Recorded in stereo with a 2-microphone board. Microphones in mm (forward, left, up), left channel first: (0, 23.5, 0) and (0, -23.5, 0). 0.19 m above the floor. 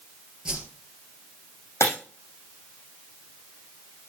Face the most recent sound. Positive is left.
turn(degrees=75)  # may be behind; listen again after turning